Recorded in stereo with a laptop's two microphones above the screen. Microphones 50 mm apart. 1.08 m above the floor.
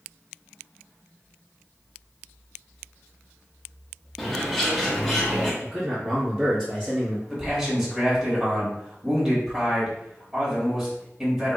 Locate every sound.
4.2 s a bird: 5° left (ahead or behind), 1.2 m
5.6 s a man speaking: 20° right (ahead or behind), 1.3 m
7.3 s a man speaking: 5° right (ahead or behind), 1.9 m